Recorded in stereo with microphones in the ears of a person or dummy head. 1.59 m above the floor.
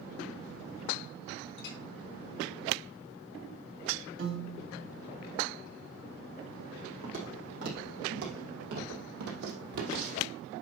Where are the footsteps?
50° right (ahead or behind), 4.5 m; by 10.3 s 60° right (ahead or behind), 3 m.